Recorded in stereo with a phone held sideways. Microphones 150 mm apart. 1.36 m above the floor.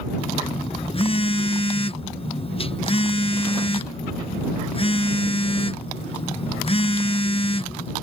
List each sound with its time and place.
0.2 s a phone buzzing: 40° left (ahead or behind)